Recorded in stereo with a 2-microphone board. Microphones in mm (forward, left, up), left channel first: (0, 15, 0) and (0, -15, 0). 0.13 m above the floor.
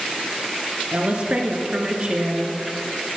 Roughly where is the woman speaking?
Right.